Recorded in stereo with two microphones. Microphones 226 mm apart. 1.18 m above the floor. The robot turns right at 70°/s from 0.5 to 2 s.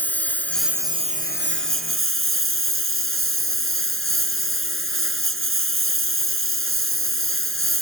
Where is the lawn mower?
170° left; by 7.8 s 85° right.